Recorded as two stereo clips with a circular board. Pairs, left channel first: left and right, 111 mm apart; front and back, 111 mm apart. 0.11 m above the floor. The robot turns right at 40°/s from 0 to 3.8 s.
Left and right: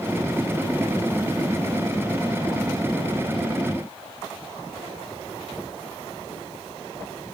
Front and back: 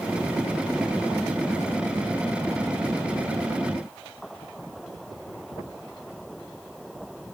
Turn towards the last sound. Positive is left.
No sound to turn to.